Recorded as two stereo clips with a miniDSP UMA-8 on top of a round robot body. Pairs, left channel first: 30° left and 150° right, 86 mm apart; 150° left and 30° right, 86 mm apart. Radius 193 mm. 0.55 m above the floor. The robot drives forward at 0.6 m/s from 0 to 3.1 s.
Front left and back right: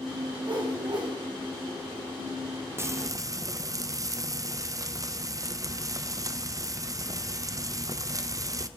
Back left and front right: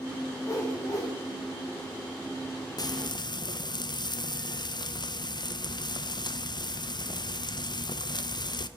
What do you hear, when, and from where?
0.4 s a whoosh: 160° right, 2.5 m; by 1.1 s 165° right, 3 m
2.8 s frying: 160° left, 0.5 m; by 8.7 s 170° left, 0.7 m